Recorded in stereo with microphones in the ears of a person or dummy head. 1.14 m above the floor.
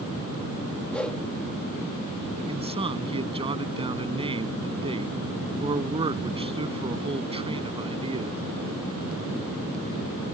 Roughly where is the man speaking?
Right.